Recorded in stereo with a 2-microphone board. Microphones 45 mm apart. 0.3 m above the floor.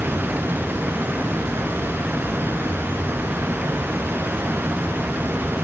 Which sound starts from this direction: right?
Running water, at 0.0 s.